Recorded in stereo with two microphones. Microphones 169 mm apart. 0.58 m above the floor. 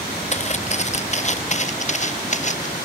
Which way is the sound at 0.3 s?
40° left (ahead or behind).